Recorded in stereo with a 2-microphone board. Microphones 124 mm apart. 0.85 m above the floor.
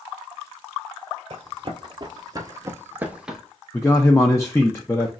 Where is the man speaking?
20° left (ahead or behind), 0.5 m.